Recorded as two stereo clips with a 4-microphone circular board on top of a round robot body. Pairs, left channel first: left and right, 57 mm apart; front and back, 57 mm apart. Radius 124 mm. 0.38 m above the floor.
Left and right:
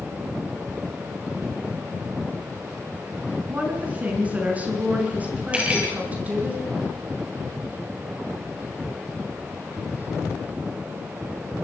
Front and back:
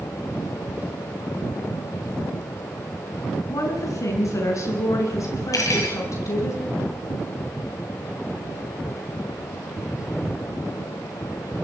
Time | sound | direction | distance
3.5 | a woman speaking | 25° right | 6.5 m
5.5 | cutlery clinking | 20° right | 7 m